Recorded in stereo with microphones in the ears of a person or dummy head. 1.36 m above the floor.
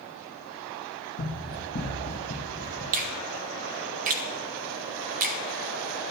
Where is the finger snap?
40° right (ahead or behind), 0.6 m.